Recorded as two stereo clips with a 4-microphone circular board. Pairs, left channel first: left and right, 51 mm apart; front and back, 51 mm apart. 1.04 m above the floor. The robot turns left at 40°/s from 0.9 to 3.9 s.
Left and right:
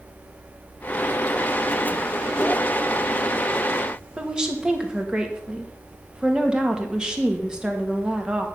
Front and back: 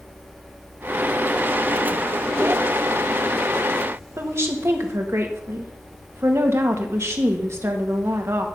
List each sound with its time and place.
4.2 s a woman speaking: 165° right, 1.7 m